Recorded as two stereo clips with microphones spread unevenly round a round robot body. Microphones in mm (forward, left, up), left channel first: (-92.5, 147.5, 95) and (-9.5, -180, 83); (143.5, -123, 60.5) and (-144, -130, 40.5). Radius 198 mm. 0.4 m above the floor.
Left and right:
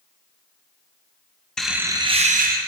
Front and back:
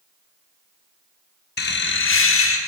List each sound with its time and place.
1.6 s laughter: 15° left, 1.2 m; by 2.6 s 25° right, 1.6 m